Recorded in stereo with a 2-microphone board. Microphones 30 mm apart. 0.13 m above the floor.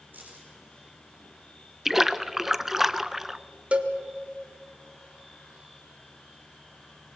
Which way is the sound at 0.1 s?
80° right.